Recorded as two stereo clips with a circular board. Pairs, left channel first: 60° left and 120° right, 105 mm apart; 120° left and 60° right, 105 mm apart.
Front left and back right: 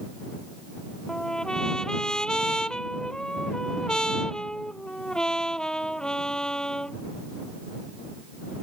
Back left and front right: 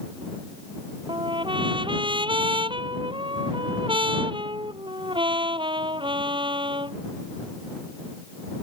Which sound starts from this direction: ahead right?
A trumpet, at 1.1 s.